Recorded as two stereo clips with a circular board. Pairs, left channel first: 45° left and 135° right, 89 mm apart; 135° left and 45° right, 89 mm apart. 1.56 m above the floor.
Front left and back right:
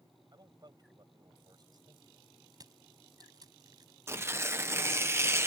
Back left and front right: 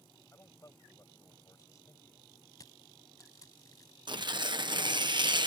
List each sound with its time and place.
0.3 s a man speaking: 175° right
2.5 s crushing: 175° right
4.1 s tearing paper: 75° right